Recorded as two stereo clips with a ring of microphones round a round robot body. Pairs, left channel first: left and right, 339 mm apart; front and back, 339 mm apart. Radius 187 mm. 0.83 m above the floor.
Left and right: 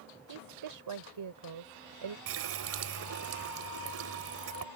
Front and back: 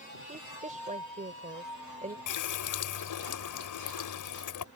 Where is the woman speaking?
110° right.